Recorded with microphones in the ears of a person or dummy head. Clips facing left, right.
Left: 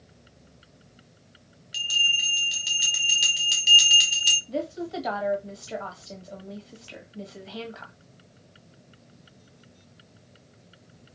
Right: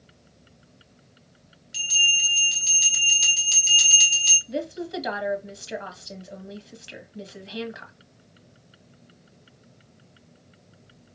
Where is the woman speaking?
15° right (ahead or behind), 1.3 m.